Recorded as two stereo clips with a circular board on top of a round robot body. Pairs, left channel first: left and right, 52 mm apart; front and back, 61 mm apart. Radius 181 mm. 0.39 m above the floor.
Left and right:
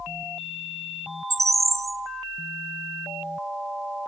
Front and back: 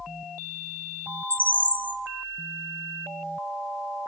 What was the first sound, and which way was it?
A bird, 70° right.